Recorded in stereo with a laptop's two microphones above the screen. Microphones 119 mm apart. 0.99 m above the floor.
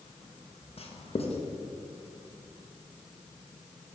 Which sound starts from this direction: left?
Writing, at 0.8 s.